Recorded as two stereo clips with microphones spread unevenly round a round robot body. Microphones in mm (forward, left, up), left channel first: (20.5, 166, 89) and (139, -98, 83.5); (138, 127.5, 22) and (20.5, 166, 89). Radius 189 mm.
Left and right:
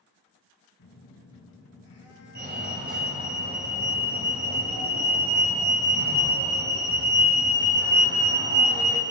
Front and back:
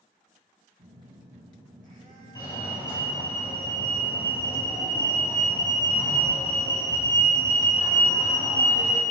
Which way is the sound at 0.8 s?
160° left.